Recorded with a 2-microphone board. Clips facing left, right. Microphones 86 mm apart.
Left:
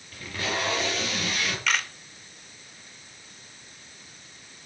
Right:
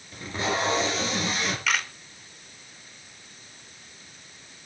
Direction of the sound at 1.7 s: Centre (ahead or behind).